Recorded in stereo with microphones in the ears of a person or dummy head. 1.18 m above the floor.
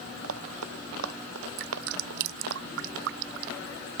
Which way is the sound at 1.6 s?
70° right (ahead or behind).